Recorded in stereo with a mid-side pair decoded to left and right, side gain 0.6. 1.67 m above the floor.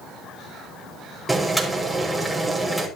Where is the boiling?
10° right, 5.5 m.